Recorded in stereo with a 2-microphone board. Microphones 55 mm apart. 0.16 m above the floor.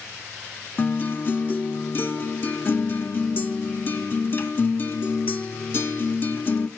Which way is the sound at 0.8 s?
40° left (ahead or behind).